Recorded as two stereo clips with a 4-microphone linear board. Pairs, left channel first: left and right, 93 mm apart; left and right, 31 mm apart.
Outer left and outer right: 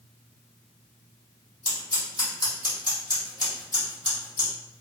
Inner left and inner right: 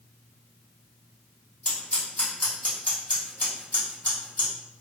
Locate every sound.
1.6 s scissors: 45° left (ahead or behind), 1.6 m